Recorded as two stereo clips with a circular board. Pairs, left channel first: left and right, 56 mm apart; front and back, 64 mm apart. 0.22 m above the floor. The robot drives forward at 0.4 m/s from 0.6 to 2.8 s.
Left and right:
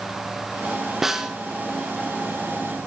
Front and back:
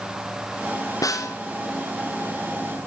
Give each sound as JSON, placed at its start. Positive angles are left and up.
{"t": 1.0, "sound": "a snare drum", "azimuth_deg": -5, "distance_m": 1.0}